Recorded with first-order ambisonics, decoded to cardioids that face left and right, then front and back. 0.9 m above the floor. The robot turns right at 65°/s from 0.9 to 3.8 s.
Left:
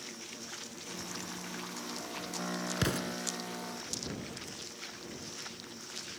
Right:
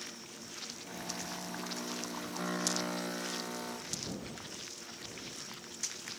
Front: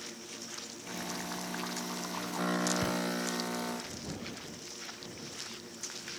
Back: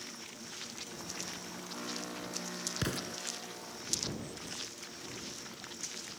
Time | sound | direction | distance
2.8 | an explosion | 100° left | ?